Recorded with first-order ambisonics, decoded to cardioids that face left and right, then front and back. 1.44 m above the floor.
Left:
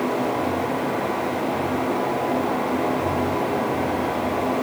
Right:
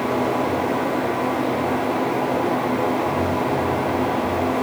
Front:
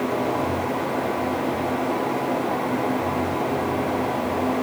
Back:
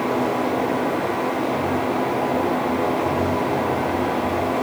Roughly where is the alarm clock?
No alarm clock in this recording.